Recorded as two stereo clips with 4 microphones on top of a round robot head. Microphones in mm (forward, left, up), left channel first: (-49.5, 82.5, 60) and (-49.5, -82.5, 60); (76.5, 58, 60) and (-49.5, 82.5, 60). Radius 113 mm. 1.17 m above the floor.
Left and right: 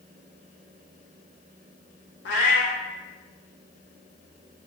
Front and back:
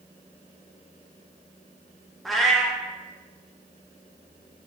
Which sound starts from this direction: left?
A cat meowing, at 2.2 s.